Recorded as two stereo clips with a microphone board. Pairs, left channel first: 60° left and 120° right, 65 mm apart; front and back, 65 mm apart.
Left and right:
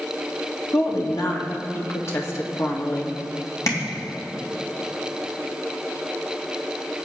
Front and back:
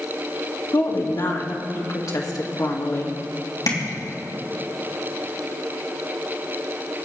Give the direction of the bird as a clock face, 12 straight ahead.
I don't hear a bird.